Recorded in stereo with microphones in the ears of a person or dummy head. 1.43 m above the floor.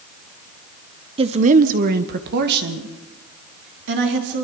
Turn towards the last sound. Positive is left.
turn(degrees=-60)  # may be behind; listen again after turning